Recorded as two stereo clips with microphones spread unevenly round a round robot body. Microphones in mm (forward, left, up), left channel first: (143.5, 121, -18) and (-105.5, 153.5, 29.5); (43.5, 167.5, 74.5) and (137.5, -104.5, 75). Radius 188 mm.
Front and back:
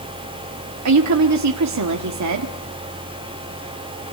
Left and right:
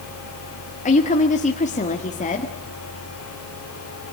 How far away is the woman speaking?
About 1.6 m.